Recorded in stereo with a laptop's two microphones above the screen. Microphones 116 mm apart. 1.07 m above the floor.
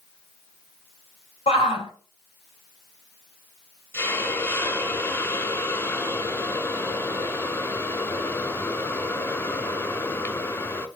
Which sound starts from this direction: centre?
A hiss, at 3.9 s.